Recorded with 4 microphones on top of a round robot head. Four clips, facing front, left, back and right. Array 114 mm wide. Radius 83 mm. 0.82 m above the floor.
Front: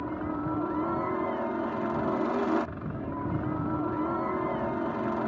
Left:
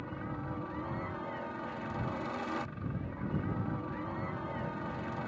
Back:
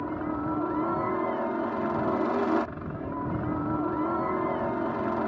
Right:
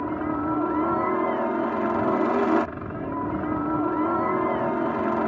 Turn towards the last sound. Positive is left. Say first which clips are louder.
# right 15 dB, back 2 dB
turn(degrees=-95)